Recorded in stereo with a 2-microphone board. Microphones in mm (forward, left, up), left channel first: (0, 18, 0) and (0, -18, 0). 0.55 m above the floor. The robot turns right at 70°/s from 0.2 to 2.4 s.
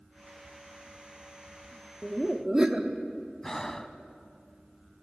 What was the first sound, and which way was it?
Laughter, 10° right (ahead or behind).